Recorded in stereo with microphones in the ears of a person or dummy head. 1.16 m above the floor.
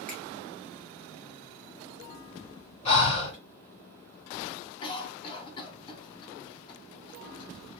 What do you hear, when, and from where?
0.1 s a finger snap: 5° left (ahead or behind), 1.5 m
2.9 s breathing: 30° left (ahead or behind), 1.7 m
4.8 s a cough: 25° left (ahead or behind), 0.8 m